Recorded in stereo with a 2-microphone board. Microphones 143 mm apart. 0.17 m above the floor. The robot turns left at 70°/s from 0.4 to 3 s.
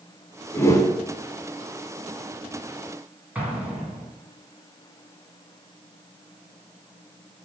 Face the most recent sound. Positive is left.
turn(degrees=-10)  # may be behind; listen again after turning